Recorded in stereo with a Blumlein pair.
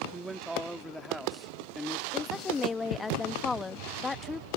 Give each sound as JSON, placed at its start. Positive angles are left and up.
{"t": 0.1, "sound": "a man speaking", "azimuth_deg": -15}
{"t": 2.1, "sound": "a woman speaking", "azimuth_deg": 15}